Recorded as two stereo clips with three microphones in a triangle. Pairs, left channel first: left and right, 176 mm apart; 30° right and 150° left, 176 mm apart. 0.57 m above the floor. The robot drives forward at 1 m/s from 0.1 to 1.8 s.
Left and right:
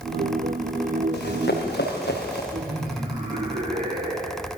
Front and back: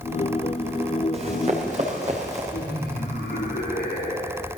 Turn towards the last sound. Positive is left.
turn(degrees=-60)